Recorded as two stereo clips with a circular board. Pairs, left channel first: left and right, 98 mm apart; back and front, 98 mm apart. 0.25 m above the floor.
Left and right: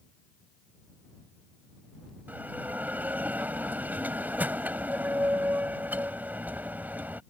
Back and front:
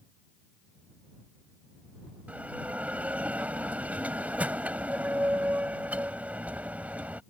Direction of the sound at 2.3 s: 50° right.